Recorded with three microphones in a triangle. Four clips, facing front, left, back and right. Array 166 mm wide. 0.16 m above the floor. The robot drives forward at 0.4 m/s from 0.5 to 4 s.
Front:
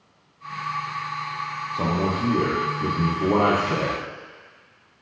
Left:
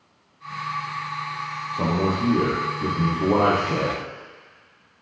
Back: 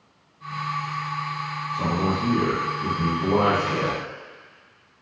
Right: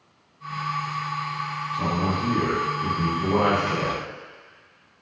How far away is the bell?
I don't hear a bell.